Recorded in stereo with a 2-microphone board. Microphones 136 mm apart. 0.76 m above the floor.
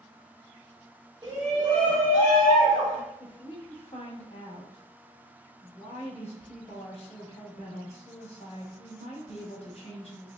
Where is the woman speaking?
50° left (ahead or behind), 1.0 m.